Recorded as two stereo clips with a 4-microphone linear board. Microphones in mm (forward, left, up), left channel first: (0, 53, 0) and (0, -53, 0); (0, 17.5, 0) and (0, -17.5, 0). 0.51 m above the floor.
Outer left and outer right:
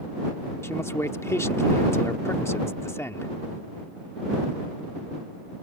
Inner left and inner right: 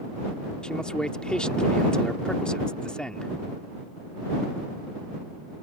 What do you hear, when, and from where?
0.6 s a man speaking: 25° left (ahead or behind)